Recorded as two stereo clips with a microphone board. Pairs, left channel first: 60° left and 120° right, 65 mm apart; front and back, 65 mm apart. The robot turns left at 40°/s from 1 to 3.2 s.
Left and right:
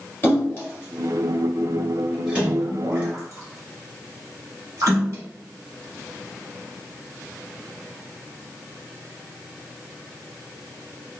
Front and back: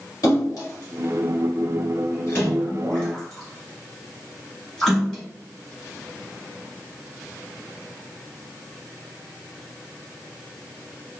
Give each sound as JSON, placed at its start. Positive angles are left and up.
{"t": 0.2, "sound": "a splash", "azimuth_deg": 5, "distance_m": 1.8}